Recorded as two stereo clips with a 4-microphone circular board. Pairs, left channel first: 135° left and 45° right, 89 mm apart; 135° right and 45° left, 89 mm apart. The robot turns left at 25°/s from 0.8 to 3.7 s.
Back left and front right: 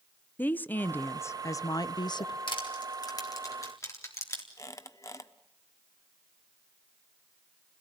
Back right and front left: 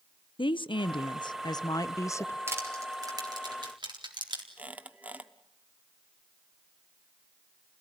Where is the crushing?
110° left, 3.5 m; by 4.5 s 80° left, 3.5 m.